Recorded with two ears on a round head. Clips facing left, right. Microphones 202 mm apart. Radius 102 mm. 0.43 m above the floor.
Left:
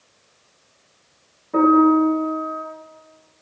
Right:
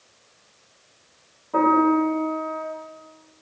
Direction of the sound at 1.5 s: 25° left (ahead or behind).